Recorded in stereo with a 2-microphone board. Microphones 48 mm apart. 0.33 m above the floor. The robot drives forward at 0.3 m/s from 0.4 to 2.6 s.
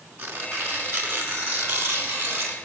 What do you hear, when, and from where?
0.2 s tearing paper: 55° right (ahead or behind), 3.5 m; by 2.6 s 65° right (ahead or behind), 3 m